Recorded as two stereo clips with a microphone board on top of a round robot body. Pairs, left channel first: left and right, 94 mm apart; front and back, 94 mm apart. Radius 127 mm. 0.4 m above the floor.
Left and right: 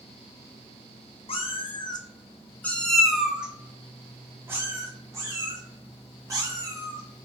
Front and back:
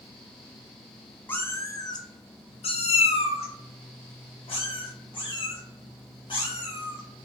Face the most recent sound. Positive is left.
turn(degrees=-40)